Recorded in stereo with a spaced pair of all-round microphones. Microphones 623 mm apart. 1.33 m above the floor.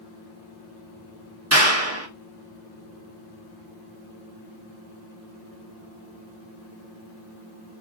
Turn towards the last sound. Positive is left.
turn(degrees=-25)  # may be behind; listen again after turning